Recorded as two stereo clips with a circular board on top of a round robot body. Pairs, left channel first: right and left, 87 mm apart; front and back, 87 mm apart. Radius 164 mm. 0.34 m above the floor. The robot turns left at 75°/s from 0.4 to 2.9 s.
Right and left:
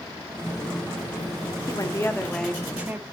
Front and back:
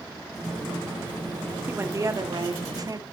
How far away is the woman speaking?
About 2 m.